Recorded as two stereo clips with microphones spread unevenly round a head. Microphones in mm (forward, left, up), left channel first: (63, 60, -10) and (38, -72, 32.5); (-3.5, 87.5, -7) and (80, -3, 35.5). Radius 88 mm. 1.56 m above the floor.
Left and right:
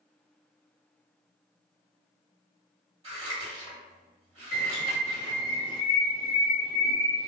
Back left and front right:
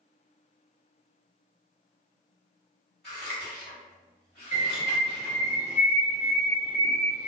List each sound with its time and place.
3.0 s scissors: 130° right, 2.0 m
4.5 s a bird: 165° left, 1.6 m